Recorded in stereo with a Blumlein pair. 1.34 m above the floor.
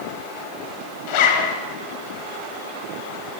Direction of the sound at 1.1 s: 45° left.